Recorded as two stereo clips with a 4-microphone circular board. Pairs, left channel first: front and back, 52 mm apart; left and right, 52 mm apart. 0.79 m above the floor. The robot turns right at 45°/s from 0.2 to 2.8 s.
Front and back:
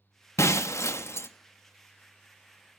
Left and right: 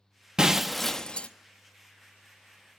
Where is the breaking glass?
15° right, 0.5 m; by 1.3 s 25° left, 0.5 m.